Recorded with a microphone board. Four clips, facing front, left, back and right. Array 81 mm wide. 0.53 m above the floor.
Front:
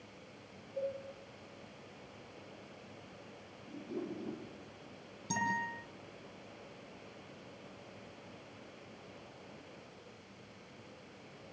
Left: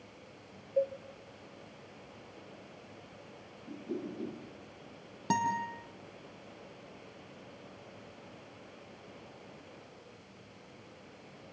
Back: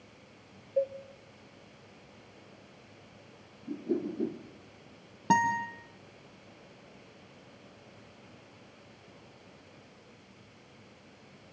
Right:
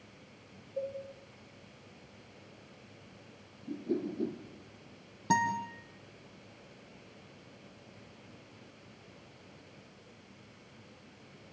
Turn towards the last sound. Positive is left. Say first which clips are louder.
# right 1 dB, back 10 dB
turn(degrees=165)